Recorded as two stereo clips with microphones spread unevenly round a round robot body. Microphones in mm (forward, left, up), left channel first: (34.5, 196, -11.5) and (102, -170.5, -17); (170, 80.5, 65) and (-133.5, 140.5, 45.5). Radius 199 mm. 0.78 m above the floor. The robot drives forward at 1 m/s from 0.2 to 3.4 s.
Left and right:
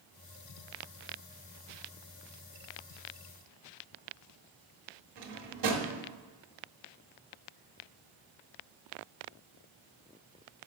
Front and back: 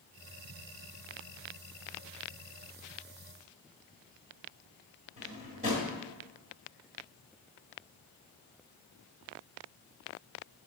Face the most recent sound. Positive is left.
turn(degrees=-115)